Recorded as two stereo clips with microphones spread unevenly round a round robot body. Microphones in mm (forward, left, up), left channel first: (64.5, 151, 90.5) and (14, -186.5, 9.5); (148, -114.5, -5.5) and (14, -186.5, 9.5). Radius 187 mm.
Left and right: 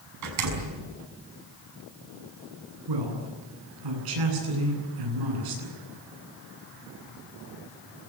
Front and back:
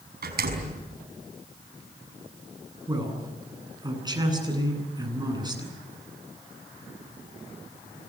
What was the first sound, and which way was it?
A door slam, 140° right.